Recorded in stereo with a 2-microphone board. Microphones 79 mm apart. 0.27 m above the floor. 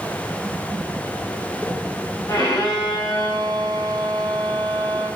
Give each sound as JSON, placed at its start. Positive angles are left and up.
{"t": 2.3, "sound": "a violin", "side_deg": 50, "distance_m": 3.0}